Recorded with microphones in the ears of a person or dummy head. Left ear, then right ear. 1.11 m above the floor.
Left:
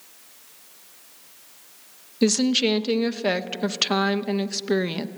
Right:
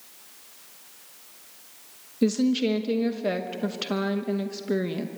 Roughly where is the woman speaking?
Left.